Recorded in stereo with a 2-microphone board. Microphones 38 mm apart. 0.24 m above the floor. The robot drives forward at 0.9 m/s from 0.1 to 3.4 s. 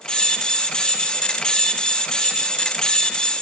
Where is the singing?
No singing in this recording.